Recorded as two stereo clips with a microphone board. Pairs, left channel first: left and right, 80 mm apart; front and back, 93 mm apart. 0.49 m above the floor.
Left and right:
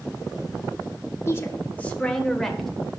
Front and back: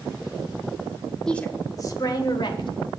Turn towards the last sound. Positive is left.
turn(degrees=5)